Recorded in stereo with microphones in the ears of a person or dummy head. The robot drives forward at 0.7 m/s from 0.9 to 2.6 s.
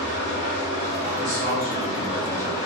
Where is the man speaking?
60° right (ahead or behind), 1.5 m; by 2.7 s 35° right (ahead or behind), 2 m.